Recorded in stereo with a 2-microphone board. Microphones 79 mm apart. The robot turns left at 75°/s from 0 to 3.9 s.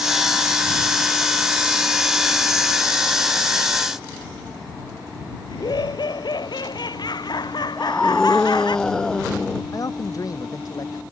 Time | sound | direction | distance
5.5 | laughter | 60° left (ahead or behind) | ?
7.8 | a scream | 10° left (ahead or behind) | ?
9.7 | a man speaking | 45° left (ahead or behind) | ?